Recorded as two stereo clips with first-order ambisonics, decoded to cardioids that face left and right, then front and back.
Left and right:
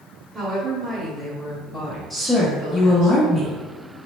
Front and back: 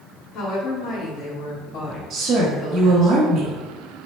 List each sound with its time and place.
0.3 s a woman speaking: 5° right, 0.9 m; by 3.1 s 55° left, 1.8 m
2.1 s a woman speaking: 175° left, 0.9 m